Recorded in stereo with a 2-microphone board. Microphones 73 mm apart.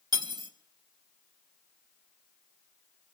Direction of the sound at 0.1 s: 80° right.